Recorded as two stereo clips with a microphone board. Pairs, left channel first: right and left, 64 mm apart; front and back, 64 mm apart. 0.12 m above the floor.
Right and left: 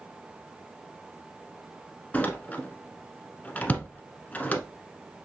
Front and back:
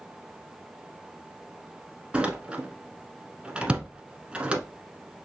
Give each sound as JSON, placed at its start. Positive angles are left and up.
{"t": 2.1, "sound": "a door slam", "azimuth_deg": -125, "distance_m": 0.8}